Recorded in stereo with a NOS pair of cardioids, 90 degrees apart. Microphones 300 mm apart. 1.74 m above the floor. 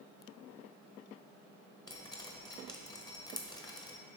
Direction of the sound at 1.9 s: 15° left.